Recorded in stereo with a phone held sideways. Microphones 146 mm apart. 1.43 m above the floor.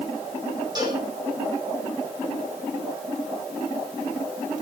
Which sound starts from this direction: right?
A cowbell, at 0.8 s.